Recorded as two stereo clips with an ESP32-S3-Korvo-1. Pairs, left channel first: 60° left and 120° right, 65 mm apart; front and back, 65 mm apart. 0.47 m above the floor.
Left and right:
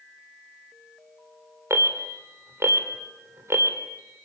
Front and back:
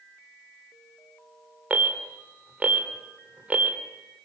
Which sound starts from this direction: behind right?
An alarm, at 1.7 s.